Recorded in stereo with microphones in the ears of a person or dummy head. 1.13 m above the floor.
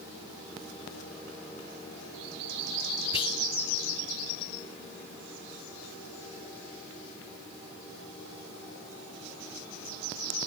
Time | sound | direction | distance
3.1 | whispering | 25° left (ahead or behind) | 0.8 m